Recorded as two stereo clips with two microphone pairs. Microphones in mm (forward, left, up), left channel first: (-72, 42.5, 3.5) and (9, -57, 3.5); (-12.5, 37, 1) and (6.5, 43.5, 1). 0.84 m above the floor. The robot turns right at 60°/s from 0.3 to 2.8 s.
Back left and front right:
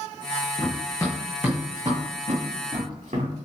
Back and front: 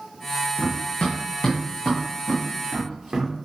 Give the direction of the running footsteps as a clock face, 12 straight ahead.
7 o'clock.